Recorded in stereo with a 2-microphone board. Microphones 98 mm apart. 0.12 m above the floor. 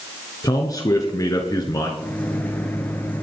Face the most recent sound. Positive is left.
turn(degrees=20)  # may be behind; listen again after turning